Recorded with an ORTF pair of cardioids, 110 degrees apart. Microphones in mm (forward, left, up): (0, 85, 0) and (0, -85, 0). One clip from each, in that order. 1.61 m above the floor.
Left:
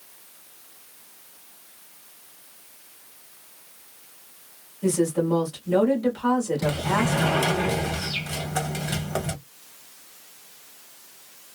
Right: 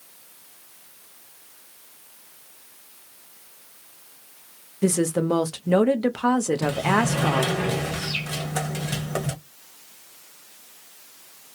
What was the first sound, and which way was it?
A woman speaking, 60° right.